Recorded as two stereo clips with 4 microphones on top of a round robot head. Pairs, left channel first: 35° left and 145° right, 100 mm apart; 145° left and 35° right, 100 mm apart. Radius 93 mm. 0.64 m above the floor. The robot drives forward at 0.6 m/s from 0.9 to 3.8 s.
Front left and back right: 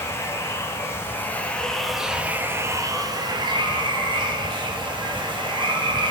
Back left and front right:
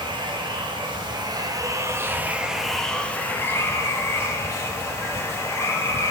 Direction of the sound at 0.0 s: 20° right.